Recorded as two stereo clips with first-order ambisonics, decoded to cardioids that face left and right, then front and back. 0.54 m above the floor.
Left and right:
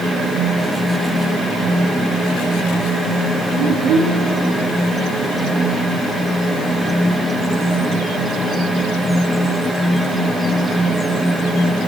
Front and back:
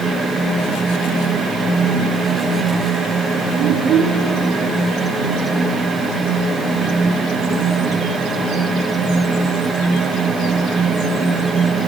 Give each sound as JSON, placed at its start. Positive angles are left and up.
{"t": 3.6, "sound": "a child speaking", "azimuth_deg": -130, "distance_m": 3.5}